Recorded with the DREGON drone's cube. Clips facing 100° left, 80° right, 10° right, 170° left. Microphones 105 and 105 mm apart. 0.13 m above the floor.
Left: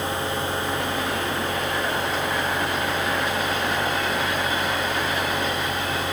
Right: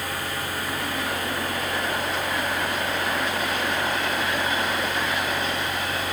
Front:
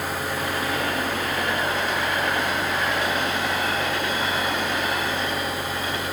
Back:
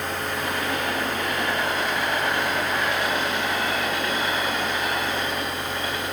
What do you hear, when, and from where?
Only background noise.